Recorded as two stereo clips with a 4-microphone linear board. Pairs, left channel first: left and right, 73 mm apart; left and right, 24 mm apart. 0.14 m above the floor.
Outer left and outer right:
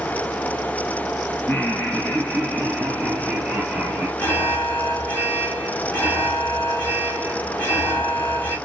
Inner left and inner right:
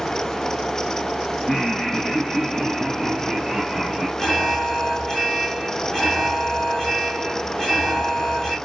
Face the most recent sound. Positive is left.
turn(degrees=25)  # may be behind; listen again after turning